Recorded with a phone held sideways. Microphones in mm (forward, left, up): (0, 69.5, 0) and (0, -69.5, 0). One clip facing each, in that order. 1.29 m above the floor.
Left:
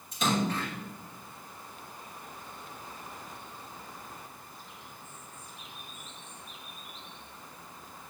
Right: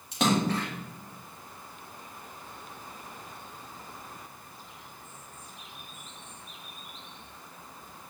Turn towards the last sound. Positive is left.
turn(degrees=-70)  # may be behind; listen again after turning